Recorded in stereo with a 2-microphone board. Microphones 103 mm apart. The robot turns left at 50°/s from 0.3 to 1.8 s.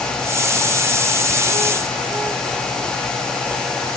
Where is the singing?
I don't hear singing.